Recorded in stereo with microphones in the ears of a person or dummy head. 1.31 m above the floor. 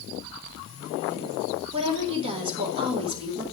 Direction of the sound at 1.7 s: 30° right (ahead or behind).